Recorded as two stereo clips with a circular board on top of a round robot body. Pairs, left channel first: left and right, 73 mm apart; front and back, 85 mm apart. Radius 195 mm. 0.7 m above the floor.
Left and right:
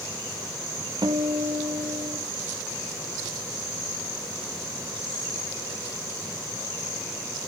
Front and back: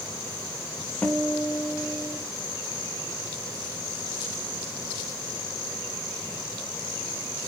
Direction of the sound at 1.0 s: 75° right.